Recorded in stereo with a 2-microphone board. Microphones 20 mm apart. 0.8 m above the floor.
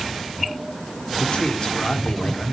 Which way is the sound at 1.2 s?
45° left (ahead or behind).